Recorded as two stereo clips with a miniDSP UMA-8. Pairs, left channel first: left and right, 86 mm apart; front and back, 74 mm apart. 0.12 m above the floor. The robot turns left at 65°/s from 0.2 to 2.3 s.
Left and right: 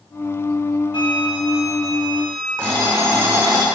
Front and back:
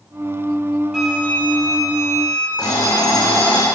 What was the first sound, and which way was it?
A flute, 100° left.